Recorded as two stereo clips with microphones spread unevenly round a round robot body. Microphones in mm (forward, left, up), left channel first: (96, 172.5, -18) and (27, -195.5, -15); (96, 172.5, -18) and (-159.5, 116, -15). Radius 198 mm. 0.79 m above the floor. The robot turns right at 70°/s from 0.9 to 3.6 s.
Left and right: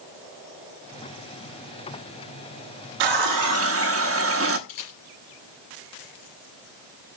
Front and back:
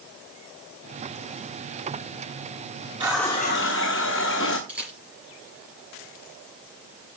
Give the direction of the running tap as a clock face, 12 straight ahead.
3 o'clock.